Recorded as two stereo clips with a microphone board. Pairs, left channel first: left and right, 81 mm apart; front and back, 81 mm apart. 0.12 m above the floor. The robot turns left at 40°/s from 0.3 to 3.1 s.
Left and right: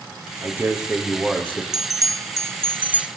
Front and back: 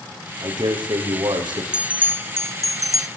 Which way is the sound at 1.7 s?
105° right.